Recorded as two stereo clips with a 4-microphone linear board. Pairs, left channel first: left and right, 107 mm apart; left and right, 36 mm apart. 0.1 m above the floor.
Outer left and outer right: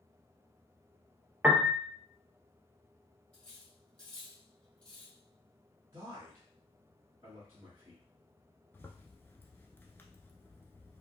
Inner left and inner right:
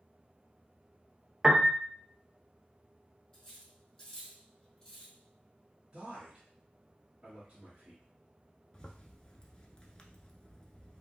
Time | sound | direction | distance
1.4 | a piano | 15° right (ahead or behind) | 0.5 m
3.3 | cutlery clinking | 10° left (ahead or behind) | 1.9 m
5.9 | a man speaking | 30° right (ahead or behind) | 1.4 m
8.7 | a zipper | 20° left (ahead or behind) | 0.5 m